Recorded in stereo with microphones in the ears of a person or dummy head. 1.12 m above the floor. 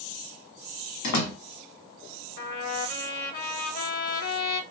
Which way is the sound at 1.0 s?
60° left (ahead or behind).